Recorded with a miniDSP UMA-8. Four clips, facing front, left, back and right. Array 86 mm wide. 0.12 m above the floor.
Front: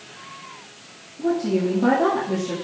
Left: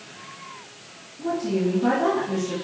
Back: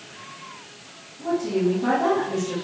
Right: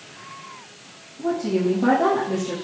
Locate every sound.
1.2 s a woman speaking: 40° right, 3.5 m